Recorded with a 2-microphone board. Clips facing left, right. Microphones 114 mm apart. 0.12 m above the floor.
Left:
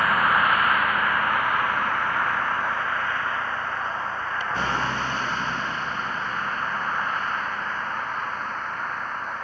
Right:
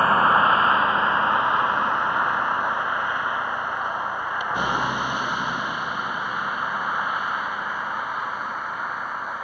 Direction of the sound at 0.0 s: 30° right (ahead or behind).